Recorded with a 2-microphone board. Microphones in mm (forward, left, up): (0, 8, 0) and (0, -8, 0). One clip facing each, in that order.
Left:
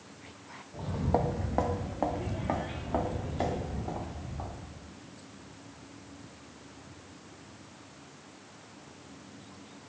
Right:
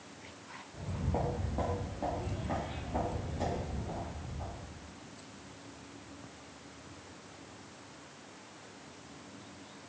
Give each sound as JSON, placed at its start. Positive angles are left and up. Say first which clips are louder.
{"t": 0.7, "sound": "footsteps", "louder": "left 7 dB", "side_deg": 60, "distance_m": 0.5}